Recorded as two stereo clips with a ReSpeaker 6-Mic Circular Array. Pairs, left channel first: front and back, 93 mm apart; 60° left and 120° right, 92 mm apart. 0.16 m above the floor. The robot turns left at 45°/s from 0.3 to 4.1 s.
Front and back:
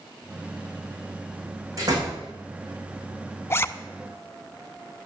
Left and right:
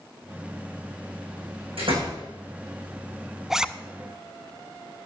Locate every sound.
1.8 s a door slam: 130° right, 7 m; by 2.2 s 145° right, 7 m
3.5 s a zipper: 35° right, 0.6 m; by 3.7 s 45° right, 0.6 m